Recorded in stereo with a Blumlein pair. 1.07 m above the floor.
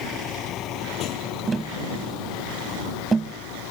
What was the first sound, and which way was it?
A vehicle, 30° left.